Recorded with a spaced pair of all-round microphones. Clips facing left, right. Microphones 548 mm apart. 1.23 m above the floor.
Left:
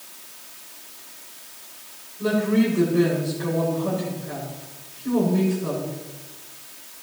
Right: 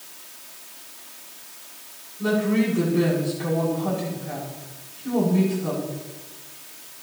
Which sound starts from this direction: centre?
A woman speaking, at 2.2 s.